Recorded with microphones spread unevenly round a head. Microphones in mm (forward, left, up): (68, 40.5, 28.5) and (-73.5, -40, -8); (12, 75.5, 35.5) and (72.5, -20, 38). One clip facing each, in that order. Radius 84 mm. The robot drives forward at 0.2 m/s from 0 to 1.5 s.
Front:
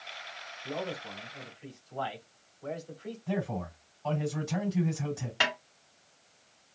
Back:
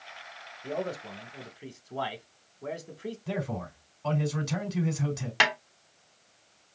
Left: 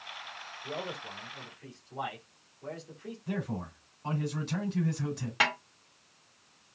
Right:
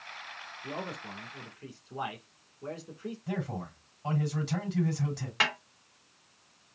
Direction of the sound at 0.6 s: 120° right.